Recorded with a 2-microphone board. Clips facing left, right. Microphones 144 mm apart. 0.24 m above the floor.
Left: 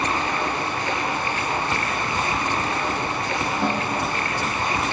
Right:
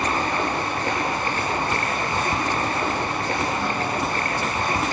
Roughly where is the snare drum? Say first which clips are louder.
Left 1 dB; left.